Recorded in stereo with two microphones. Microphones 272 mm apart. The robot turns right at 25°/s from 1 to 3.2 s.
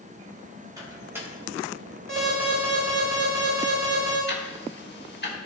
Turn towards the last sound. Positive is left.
turn(degrees=40)  # may be behind; listen again after turning